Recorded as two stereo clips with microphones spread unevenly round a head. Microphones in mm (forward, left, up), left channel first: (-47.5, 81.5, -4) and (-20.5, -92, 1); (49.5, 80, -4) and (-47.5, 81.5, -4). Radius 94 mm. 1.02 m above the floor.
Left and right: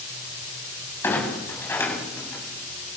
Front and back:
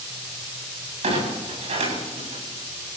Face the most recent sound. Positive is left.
turn(degrees=175)